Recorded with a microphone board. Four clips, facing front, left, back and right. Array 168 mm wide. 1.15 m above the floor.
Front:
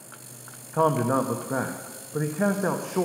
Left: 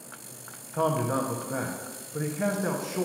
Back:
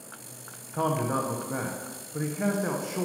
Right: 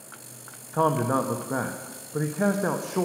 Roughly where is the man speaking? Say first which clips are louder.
Right 3 dB, front 5 dB; ahead right.